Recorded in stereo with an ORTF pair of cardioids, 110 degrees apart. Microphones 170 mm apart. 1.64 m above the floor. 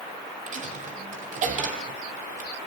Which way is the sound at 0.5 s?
50° right.